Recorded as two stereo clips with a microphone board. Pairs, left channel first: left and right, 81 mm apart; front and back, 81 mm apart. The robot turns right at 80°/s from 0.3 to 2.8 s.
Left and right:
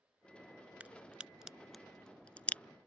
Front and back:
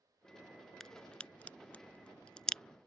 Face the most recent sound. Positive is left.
turn(degrees=85)